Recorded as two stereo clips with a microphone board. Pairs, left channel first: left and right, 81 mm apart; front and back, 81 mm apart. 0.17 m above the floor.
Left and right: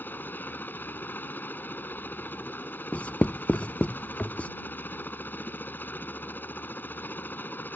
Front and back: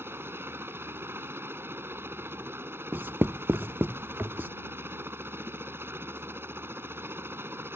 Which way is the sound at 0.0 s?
140° left.